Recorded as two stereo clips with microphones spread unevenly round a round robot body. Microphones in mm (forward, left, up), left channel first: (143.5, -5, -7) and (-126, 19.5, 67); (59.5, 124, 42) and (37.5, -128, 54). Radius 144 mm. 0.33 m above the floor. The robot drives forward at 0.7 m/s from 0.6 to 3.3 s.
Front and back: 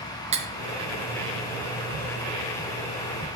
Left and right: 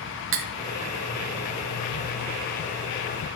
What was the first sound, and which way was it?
Cutlery clinking, 110° right.